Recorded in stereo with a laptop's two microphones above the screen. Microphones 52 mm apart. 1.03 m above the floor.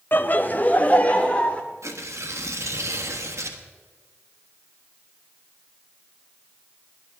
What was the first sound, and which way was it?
Laughter, 45° left (ahead or behind).